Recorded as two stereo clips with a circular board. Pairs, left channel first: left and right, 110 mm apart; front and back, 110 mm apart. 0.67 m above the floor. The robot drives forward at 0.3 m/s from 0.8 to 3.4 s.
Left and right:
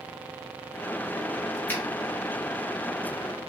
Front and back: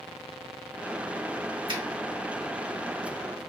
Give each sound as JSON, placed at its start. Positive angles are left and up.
{"t": 1.7, "sound": "a finger snap", "azimuth_deg": 155, "distance_m": 1.3}